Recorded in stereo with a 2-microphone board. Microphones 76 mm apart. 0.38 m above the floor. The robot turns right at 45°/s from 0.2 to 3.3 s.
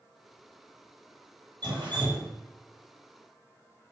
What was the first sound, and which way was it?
Dripping, 110° right.